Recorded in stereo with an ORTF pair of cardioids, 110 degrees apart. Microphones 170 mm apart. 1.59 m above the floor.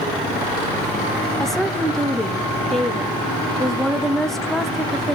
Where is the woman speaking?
Straight ahead, 0.9 m.